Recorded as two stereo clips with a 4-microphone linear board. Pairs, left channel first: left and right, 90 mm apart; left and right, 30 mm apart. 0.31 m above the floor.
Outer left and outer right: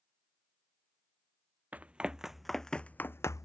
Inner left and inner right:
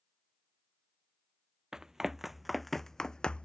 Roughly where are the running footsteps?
Centre.